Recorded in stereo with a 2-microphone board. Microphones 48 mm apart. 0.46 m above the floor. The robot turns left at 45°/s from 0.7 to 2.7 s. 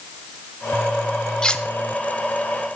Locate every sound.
1.4 s cutlery clinking: 15° left (ahead or behind), 0.6 m; by 1.6 s 20° left (ahead or behind), 0.6 m